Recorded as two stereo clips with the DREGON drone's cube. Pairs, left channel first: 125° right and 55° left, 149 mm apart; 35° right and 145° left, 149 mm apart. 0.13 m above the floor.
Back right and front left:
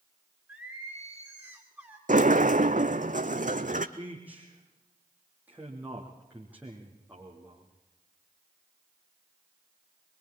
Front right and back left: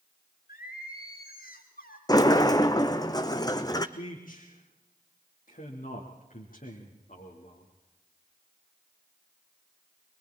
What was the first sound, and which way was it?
Singing, 25° right.